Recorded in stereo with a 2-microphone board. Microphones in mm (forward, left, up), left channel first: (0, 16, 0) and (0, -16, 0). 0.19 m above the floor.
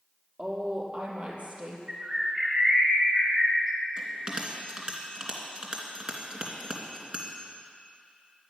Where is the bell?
30° right (ahead or behind), 2.5 m.